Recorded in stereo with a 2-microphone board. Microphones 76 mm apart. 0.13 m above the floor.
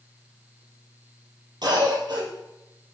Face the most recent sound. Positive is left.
turn(degrees=-70)  # may be behind; listen again after turning